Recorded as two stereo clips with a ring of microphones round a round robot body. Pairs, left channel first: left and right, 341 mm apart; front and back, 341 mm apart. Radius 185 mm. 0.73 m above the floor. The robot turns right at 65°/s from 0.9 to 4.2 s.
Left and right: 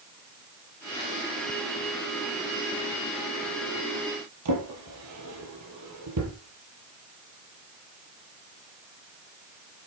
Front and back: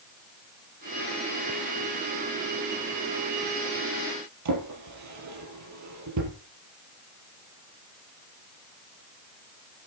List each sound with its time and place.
4.5 s a drawer: 140° right, 5 m